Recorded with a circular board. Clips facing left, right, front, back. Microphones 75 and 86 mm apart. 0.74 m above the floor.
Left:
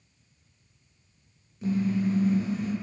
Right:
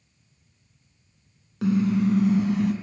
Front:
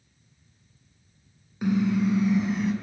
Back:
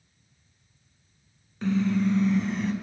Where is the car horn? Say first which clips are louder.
Right 5 dB, front 1 dB; 80° right, 4 m; by 2.7 s 85° right, 2.5 m.